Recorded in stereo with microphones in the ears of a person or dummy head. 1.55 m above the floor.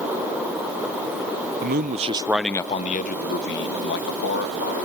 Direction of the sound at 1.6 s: 55° right (ahead or behind).